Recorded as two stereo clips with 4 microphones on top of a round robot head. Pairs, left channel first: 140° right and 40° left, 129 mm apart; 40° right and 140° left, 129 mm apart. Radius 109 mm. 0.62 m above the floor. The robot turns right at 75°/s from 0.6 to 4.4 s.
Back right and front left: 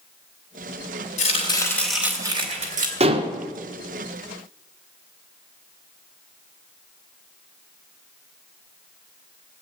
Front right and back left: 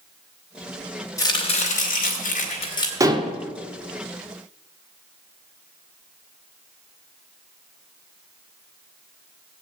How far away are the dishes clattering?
About 1.2 m.